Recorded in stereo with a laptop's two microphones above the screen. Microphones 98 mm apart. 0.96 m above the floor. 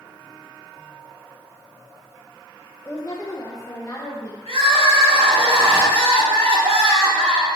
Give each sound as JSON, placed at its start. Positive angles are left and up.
{"t": 2.9, "sound": "a woman speaking", "side_deg": 25, "distance_m": 0.9}
{"t": 4.5, "sound": "crying", "side_deg": -75, "distance_m": 1.6}